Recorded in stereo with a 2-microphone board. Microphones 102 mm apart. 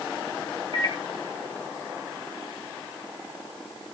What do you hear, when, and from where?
0.7 s a microwave: 70° right (ahead or behind), 2.5 m